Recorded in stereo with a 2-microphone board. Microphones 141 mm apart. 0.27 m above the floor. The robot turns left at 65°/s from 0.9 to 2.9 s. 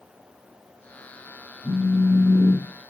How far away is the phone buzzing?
About 0.9 m.